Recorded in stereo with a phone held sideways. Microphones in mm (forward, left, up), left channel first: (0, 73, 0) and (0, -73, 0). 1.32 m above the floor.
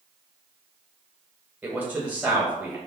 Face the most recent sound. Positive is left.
turn(degrees=-10)  # may be behind; listen again after turning